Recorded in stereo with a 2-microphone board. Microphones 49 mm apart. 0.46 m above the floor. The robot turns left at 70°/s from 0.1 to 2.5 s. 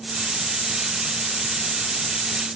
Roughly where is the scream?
No scream in this recording.